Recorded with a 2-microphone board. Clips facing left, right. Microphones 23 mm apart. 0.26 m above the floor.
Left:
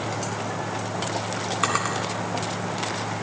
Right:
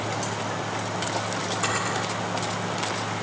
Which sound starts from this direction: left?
A drawer, at 1.6 s.